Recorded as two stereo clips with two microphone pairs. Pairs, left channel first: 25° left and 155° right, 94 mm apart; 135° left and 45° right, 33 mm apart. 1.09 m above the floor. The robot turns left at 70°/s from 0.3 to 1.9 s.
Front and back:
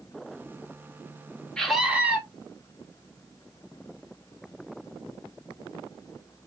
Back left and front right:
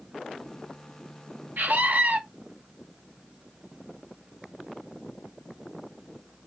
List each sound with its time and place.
1.6 s a scream: 60° right, 1.6 m; by 2.2 s 80° right, 1.6 m